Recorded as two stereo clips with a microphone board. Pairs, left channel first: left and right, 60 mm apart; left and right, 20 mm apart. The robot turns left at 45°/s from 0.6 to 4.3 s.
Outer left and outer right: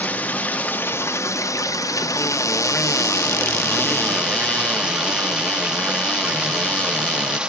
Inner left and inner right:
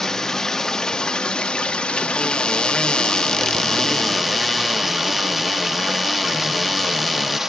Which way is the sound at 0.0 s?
155° left.